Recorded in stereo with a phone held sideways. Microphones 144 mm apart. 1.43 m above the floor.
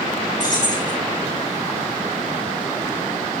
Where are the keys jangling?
70° left (ahead or behind), 8.5 m.